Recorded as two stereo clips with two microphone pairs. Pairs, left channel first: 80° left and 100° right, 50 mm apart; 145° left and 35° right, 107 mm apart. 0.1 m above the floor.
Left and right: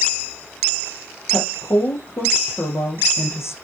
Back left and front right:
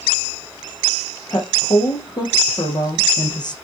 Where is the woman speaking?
100° left, 5.5 m.